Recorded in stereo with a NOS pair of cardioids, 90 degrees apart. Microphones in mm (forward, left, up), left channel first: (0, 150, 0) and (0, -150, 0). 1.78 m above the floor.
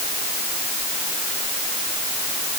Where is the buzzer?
No buzzer in this recording.